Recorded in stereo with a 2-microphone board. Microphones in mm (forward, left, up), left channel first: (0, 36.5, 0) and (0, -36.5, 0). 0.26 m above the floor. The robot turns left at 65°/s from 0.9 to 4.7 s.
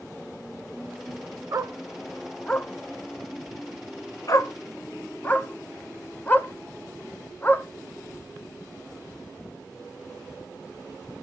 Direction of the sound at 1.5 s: 50° right (ahead or behind).